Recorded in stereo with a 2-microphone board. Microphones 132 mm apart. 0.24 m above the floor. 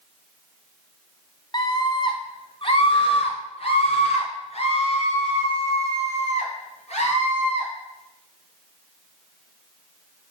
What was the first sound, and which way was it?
A scream, 35° left (ahead or behind).